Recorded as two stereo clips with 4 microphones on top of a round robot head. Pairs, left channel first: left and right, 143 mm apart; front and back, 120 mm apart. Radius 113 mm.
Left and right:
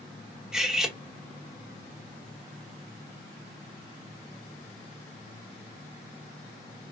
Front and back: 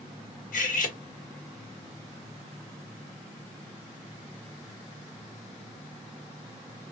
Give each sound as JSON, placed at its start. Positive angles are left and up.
{"t": 0.5, "sound": "cutlery clinking", "azimuth_deg": -5, "distance_m": 1.5}